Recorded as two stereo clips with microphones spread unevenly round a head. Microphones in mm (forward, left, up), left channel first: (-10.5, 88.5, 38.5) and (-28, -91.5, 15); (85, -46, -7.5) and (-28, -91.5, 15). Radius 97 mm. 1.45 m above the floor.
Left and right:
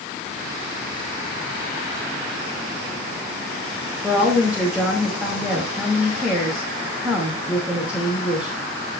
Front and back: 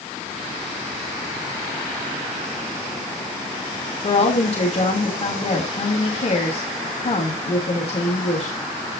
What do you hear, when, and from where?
4.0 s a woman speaking: 10° right, 3 m